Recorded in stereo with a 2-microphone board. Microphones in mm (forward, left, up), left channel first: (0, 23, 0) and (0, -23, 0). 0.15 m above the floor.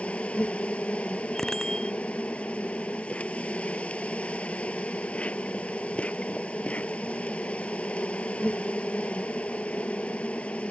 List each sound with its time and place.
0.0 s an insect: 30° left (ahead or behind)
1.4 s a bicycle bell: 10° left (ahead or behind)